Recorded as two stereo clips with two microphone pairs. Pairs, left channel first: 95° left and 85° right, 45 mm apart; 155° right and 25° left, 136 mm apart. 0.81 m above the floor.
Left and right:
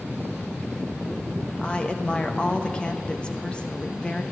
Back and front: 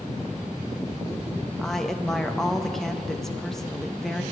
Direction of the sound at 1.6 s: 115° left.